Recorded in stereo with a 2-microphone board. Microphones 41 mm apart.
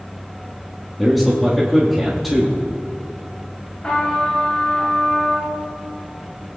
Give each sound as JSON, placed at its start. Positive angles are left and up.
{"t": 1.0, "sound": "a man speaking", "side_deg": 0, "distance_m": 1.3}
{"t": 3.8, "sound": "a trumpet", "side_deg": 30, "distance_m": 3.0}